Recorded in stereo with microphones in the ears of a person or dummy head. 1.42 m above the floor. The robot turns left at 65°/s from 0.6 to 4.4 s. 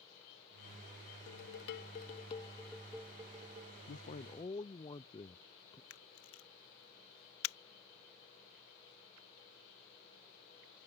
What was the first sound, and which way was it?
Dishes clattering, 100° left.